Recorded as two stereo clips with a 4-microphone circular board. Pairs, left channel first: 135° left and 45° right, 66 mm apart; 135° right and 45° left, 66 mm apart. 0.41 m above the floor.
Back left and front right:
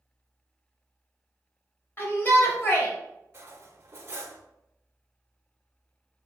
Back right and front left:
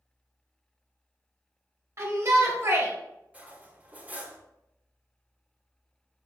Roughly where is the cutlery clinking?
Ahead.